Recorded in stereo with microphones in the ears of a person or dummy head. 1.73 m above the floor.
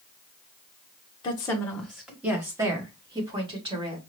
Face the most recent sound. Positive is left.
turn(degrees=-25)  # may be behind; listen again after turning